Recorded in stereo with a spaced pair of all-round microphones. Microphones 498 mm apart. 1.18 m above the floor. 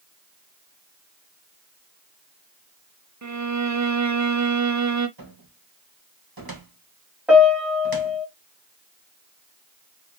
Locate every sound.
3.2 s a violin: 35° right (ahead or behind), 0.6 m
5.2 s a cupboard door: 45° right (ahead or behind), 1.4 m
7.3 s a piano: centre (ahead or behind), 2 m